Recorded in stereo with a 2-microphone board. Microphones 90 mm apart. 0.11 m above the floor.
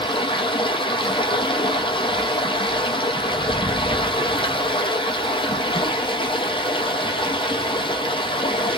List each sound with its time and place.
0.0 s running water: 80° left, 0.8 m